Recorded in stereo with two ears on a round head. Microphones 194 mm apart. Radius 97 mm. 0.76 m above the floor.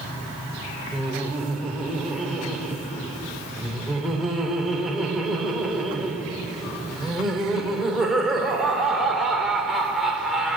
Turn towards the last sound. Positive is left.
turn(degrees=0)  # may be behind; listen again after turning